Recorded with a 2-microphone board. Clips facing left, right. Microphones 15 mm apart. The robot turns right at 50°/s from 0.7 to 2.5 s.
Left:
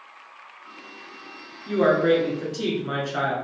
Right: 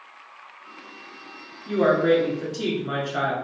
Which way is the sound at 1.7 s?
20° left (ahead or behind).